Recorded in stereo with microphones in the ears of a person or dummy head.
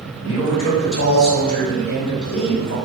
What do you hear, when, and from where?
0.2 s a man speaking: 75° left (ahead or behind), 1.9 m